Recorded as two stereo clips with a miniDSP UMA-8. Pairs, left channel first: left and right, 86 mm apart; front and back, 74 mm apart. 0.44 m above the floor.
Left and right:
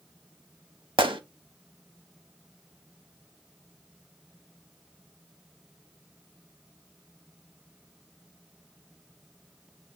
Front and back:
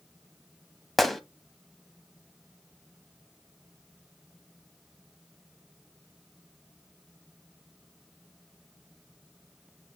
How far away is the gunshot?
About 0.6 m.